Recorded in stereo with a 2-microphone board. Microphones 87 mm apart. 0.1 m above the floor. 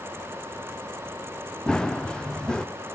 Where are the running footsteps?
10° left (ahead or behind), 0.9 m.